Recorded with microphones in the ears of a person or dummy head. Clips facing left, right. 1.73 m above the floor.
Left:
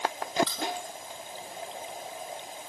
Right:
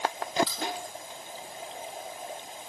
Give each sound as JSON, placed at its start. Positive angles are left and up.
{"t": 0.5, "sound": "keys jangling", "side_deg": -10, "distance_m": 4.0}